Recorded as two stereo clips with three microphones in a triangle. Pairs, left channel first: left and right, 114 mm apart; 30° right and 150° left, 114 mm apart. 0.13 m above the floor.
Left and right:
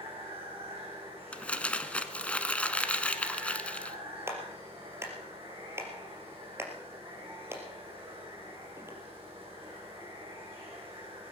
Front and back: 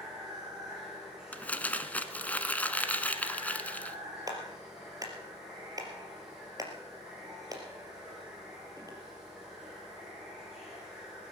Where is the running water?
125° right, 7 m.